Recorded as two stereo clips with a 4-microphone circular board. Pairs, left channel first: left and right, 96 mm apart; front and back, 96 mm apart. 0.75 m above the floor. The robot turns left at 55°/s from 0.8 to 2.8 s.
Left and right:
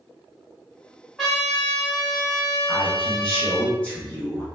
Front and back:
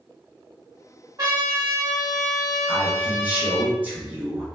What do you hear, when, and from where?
1.2 s a trumpet: straight behind, 1.5 m; by 3.7 s 90° left, 1.5 m
2.7 s a man speaking: 155° left, 0.9 m; by 4.5 s 145° left, 0.9 m